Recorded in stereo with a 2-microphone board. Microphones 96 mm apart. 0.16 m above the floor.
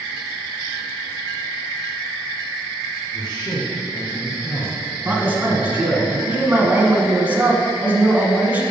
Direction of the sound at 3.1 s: 50° left (ahead or behind).